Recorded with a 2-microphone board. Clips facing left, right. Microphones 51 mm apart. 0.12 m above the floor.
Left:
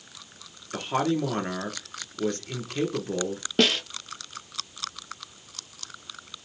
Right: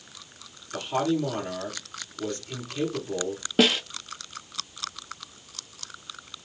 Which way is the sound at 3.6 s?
5° right (ahead or behind).